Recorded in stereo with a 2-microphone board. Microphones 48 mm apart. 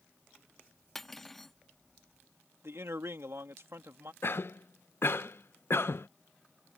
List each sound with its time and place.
0.9 s cutlery clinking: 5° left (ahead or behind)
2.6 s a man speaking: 65° right (ahead or behind)
4.2 s a cough: 55° left (ahead or behind)